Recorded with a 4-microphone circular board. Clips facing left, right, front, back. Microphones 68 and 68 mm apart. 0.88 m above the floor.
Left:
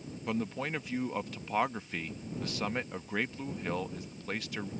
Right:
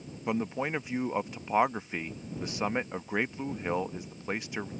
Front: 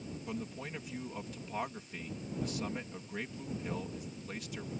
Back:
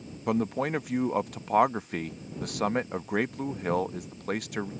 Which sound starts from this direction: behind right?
A man speaking, at 0.3 s.